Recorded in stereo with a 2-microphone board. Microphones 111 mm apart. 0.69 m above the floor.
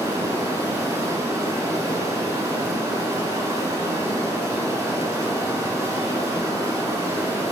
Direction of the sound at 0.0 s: 30° right (ahead or behind).